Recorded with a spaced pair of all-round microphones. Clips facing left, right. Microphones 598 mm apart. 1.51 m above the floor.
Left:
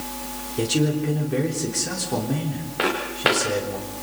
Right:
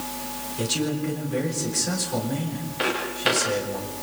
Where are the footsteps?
75° left (ahead or behind), 6 m.